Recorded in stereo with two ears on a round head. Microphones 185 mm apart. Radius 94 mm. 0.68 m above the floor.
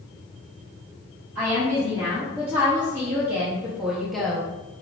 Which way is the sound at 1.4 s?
10° right (ahead or behind).